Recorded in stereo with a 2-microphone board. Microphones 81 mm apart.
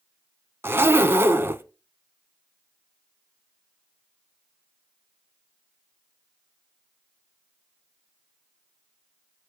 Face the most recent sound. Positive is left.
turn(degrees=-30)  # may be behind; listen again after turning